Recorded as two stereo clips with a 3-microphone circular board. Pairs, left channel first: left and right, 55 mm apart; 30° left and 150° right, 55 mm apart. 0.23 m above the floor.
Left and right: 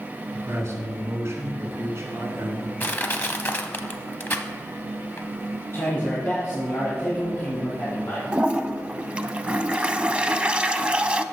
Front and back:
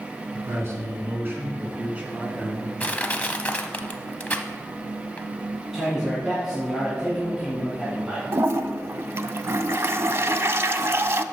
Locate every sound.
0.3 s a man speaking: 120° right, 3 m; by 2.7 s 80° right, 2.5 m
2.8 s crushing: 75° left, 0.8 m
5.7 s a man speaking: 125° left, 2.5 m
8.3 s a toilet flushing: 150° right, 0.5 m